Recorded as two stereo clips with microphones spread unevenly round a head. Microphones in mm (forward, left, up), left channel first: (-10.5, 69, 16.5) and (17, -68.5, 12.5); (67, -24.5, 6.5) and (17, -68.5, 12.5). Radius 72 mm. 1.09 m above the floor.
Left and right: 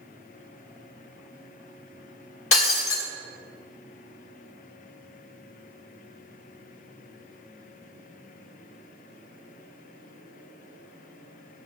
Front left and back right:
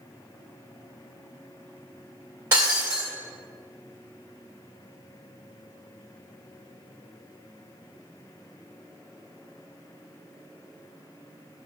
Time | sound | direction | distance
2.5 | breaking glass | 150° left | 1.6 m